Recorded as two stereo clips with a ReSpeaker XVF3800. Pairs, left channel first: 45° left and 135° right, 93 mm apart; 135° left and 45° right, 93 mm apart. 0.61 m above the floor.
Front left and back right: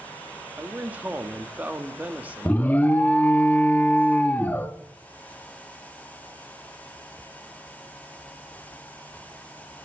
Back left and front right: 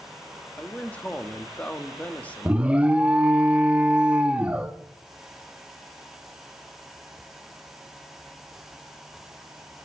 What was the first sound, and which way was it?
A man speaking, 175° right.